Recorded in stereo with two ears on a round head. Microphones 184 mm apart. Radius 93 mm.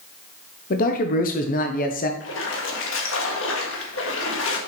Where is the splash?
70° left (ahead or behind), 1.6 m.